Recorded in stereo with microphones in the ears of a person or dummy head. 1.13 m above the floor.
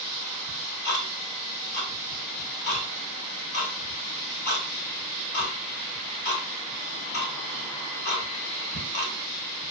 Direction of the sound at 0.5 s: 60° left (ahead or behind).